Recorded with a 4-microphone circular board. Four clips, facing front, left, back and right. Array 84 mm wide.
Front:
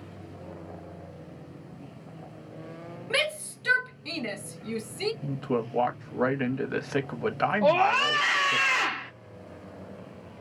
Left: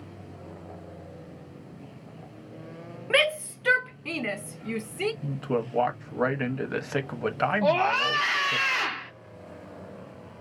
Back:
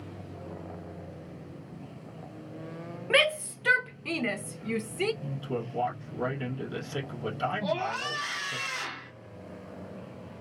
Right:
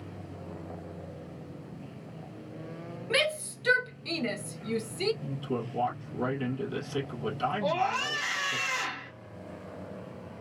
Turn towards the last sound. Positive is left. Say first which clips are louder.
# left 6 dB, front 9 dB
turn(degrees=30)